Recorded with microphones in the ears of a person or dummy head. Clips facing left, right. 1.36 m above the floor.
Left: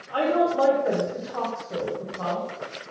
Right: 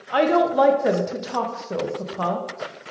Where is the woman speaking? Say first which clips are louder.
Right 4 dB; 80° right, 0.6 m.